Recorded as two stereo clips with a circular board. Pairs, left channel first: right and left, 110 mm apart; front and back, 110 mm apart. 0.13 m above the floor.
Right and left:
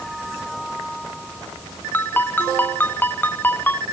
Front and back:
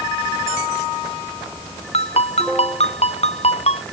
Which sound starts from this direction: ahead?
A ringtone, at 1.9 s.